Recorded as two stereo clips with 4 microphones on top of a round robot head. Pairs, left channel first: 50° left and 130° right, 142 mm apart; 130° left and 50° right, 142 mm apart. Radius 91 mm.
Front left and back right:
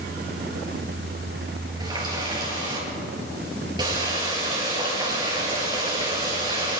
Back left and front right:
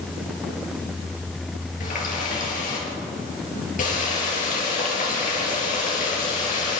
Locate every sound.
1.8 s a running tap: 165° left, 6 m